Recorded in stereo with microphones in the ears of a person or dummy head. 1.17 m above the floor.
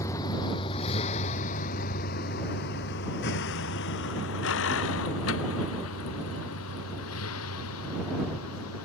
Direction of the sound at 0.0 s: 15° left (ahead or behind).